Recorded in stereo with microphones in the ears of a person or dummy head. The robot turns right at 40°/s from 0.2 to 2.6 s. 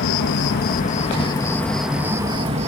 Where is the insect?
115° left; by 2.7 s 145° right.